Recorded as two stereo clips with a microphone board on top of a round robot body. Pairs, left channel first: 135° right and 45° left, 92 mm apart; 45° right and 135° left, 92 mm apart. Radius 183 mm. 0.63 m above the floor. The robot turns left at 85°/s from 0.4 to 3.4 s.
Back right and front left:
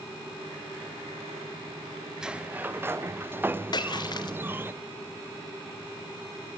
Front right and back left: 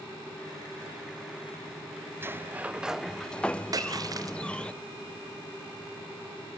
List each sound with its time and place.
2.2 s a sliding door: 120° left, 1.0 m; by 4.7 s 15° left, 1.0 m
3.7 s a splash: 175° right, 1.3 m